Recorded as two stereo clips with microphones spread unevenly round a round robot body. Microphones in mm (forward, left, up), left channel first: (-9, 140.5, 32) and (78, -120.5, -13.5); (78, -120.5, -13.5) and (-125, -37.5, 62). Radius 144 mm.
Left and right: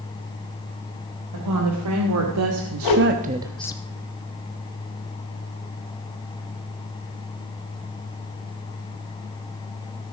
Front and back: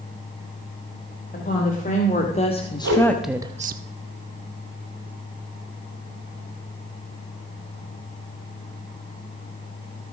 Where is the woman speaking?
65° right, 3 m; by 3.8 s 170° left, 0.7 m.